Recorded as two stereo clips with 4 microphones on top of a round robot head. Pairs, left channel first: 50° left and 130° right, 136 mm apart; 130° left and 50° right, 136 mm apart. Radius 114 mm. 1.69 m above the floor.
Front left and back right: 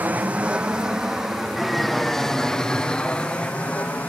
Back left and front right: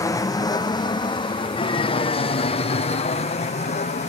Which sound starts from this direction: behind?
An aircraft, at 0.0 s.